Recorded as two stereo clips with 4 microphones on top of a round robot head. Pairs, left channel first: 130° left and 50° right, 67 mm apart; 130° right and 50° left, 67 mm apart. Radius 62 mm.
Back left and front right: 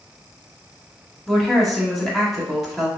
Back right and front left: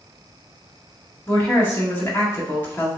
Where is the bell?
I don't hear a bell.